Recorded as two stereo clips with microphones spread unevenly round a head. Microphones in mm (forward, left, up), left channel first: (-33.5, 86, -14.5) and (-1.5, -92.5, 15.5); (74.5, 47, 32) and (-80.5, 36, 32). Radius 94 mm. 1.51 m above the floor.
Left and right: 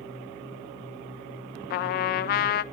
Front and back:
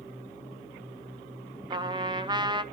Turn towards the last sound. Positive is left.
turn(degrees=130)